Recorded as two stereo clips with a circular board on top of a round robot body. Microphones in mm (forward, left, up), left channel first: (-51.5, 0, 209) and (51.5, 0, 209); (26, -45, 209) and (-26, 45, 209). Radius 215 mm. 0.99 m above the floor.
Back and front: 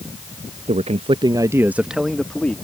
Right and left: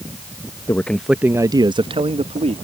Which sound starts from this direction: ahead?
A man speaking, at 0.7 s.